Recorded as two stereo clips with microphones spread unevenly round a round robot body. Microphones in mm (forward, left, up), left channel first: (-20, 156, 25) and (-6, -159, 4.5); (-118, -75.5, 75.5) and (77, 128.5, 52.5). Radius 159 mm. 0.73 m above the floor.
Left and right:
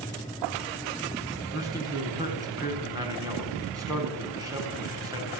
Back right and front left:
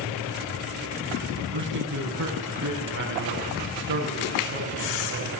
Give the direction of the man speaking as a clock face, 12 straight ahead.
12 o'clock.